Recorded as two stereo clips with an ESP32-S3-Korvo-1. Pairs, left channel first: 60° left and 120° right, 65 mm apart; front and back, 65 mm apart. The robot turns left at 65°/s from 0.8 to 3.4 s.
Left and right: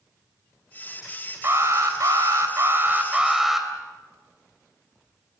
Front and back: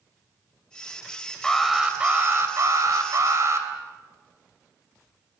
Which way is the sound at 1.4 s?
80° right.